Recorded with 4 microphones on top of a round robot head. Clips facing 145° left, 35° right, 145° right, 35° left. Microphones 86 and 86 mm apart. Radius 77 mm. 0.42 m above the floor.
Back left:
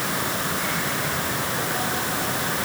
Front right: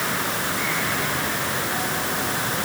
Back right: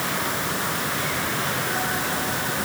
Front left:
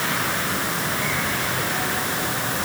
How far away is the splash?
No splash in this recording.